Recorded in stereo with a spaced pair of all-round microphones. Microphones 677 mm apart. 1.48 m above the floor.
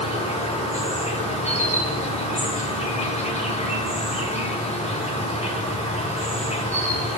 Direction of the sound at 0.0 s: 10° left (ahead or behind).